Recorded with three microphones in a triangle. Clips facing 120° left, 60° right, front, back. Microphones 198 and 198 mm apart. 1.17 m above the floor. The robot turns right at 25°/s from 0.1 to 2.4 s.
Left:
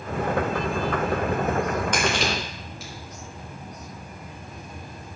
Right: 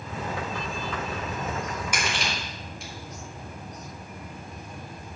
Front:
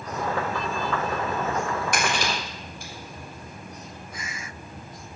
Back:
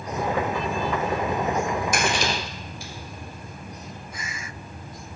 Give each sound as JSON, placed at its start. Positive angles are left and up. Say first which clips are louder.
{"t": 1.9, "sound": "crushing", "louder": "left 7 dB, back 2 dB", "azimuth_deg": 20, "distance_m": 5.0}